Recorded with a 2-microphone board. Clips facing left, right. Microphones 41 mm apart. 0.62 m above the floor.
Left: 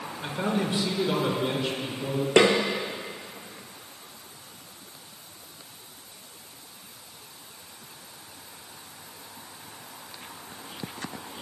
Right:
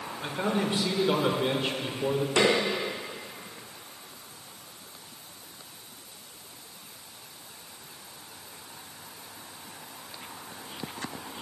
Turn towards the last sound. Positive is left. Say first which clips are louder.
# left 5 dB
turn(degrees=60)  # may be behind; listen again after turning